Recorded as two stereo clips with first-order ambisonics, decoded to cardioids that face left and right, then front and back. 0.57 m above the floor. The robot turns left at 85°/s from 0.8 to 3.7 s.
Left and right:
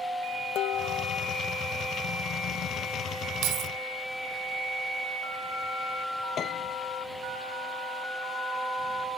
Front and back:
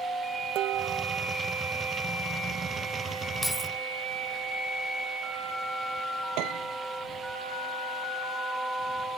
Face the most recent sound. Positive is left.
turn(degrees=150)